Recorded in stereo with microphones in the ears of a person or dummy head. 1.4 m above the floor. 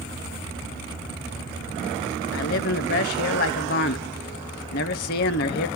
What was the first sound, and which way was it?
A man speaking, 55° left (ahead or behind).